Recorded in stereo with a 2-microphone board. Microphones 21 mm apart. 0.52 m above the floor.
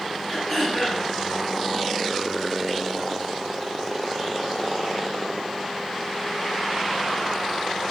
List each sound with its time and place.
0.3 s throat clearing: 15° left (ahead or behind), 3.5 m